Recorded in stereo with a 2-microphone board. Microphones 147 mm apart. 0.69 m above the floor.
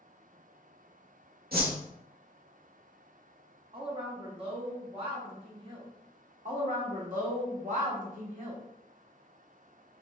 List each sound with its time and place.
1.5 s a whoosh: 85° right, 1.0 m
3.7 s a woman speaking: 35° right (ahead or behind), 1.1 m
6.5 s a woman speaking: 60° right (ahead or behind), 1.3 m